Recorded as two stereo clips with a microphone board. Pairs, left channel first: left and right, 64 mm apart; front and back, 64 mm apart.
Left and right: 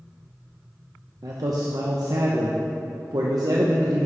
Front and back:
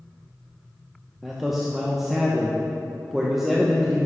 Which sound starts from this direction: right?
A man speaking, at 1.2 s.